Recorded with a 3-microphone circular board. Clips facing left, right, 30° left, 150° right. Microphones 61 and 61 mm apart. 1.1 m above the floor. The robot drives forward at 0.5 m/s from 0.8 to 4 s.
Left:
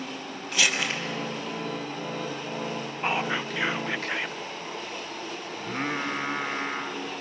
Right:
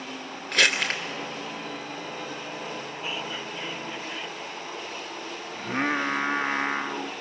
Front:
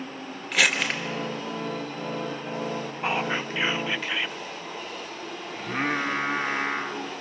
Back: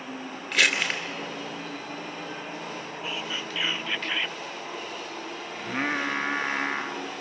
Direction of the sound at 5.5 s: 60° right.